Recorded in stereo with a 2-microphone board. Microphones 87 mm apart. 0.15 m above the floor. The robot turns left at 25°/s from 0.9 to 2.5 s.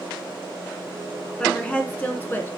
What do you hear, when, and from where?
1.4 s a woman speaking: 10° left (ahead or behind), 1.3 m; by 2.5 s 25° left (ahead or behind), 1.3 m